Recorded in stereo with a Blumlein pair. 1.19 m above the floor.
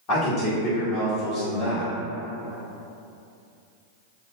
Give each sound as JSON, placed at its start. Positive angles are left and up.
{"t": 0.1, "sound": "a man speaking", "azimuth_deg": 40, "distance_m": 1.5}